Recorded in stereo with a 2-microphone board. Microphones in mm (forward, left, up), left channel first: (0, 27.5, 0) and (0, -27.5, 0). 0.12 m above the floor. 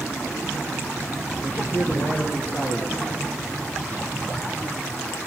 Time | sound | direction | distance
1.4 | a man speaking | 35° left (ahead or behind) | 4.5 m